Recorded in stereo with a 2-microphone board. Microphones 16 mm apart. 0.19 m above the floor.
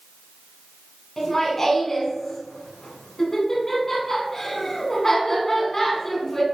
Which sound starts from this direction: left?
Laughter, at 1.2 s.